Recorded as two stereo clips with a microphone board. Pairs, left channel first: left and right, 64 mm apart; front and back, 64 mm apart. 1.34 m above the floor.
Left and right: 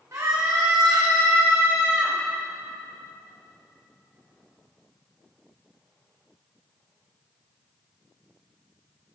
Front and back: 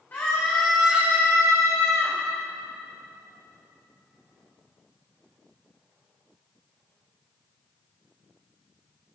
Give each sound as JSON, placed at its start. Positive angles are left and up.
{"t": 0.1, "sound": "a scream", "azimuth_deg": -55, "distance_m": 1.5}